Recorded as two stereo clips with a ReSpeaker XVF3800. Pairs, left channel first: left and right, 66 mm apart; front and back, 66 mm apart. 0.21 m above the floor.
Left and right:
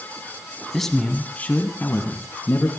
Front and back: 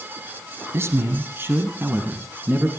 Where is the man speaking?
175° left, 1.5 m; by 2.7 s 115° left, 2.5 m.